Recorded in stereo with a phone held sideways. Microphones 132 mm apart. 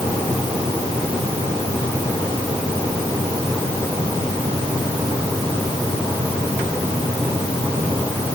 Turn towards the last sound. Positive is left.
No sound to turn to.